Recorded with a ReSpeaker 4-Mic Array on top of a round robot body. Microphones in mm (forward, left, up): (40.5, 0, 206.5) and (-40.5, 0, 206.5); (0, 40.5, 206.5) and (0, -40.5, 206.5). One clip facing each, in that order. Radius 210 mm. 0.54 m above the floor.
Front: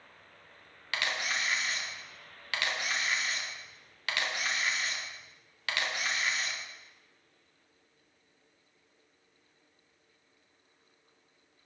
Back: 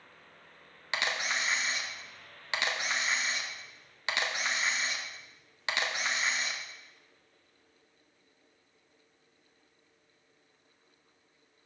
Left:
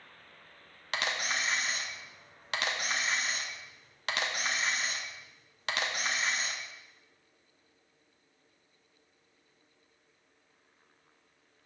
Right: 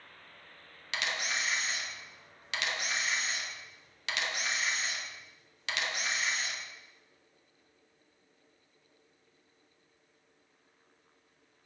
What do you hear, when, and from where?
0.9 s a camera shutter: 120° left, 1.6 m